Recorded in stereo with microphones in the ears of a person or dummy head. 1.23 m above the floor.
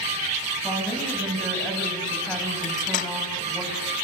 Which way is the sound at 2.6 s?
45° left (ahead or behind).